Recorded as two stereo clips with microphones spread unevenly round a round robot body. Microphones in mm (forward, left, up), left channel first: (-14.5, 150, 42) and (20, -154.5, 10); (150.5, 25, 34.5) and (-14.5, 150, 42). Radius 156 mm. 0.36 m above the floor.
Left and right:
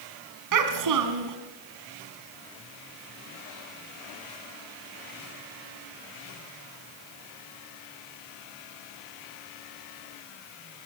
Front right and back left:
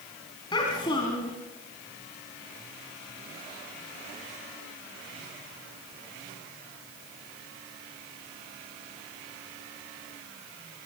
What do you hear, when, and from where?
0.5 s a child speaking: 115° right, 1.8 m